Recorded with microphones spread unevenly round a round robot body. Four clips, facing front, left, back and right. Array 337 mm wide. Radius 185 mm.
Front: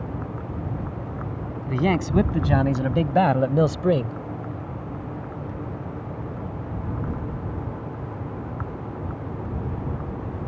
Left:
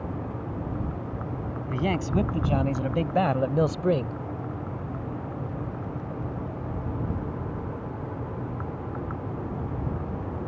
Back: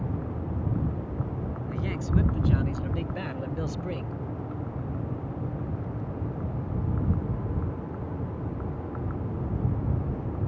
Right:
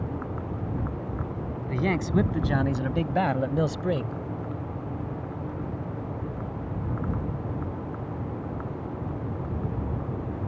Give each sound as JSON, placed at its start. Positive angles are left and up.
{"t": 1.7, "sound": "a man speaking", "azimuth_deg": 0}